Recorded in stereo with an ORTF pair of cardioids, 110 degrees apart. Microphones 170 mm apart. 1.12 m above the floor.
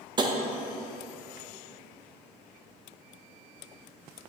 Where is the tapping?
25° right, 0.8 m.